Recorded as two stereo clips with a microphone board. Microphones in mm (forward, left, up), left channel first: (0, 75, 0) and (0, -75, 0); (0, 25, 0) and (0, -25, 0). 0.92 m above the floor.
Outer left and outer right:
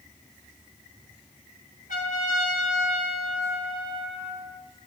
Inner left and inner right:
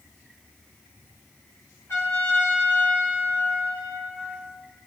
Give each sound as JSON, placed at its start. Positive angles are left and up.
{"t": 1.9, "sound": "a trumpet", "side_deg": 65, "distance_m": 4.0}